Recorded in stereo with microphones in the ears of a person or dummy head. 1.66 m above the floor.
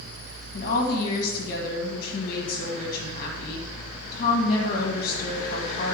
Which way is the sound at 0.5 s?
45° left (ahead or behind).